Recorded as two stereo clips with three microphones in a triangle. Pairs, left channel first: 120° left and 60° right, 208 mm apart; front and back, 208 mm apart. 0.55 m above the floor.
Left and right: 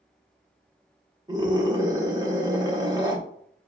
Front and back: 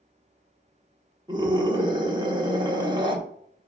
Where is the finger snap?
I don't hear a finger snap.